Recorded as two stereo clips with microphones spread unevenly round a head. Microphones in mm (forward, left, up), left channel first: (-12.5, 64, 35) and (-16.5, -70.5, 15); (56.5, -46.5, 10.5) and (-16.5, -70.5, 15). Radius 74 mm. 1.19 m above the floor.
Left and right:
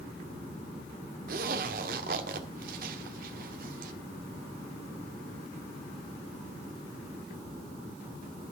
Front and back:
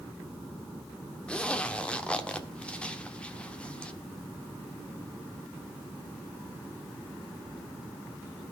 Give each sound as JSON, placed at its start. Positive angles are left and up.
{"t": 1.3, "sound": "a zipper", "azimuth_deg": -60, "distance_m": 1.4}